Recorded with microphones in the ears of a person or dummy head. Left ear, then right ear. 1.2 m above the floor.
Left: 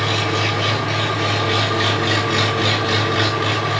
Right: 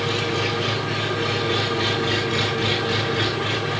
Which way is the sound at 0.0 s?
25° left (ahead or behind).